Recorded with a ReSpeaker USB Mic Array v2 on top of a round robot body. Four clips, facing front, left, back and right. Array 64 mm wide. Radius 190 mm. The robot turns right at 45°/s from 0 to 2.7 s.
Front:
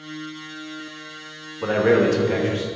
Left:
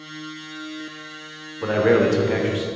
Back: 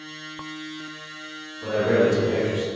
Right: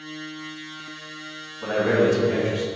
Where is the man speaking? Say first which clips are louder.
Left 3 dB, front 3 dB; 35° left, 1.6 m; by 2.6 s 80° left, 1.6 m.